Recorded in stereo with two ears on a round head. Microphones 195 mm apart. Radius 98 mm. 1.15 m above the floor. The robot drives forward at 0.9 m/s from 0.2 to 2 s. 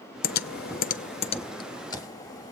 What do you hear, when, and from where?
0.2 s typing on a keyboard: 40° left (ahead or behind), 0.6 m; by 2.5 s 15° left (ahead or behind), 1.5 m